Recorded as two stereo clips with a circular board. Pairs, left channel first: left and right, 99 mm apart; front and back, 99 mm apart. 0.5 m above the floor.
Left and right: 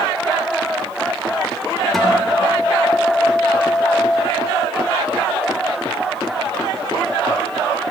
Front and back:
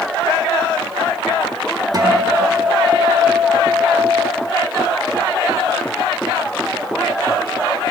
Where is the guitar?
175° left, 1.2 m.